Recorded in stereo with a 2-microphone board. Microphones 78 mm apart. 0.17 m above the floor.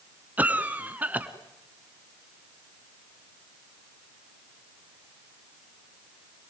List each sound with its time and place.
0.4 s a cough: 20° right (ahead or behind), 1.8 m